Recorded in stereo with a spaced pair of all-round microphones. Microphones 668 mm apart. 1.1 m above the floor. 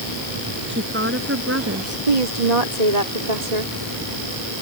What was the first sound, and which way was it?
A woman speaking, 15° right (ahead or behind).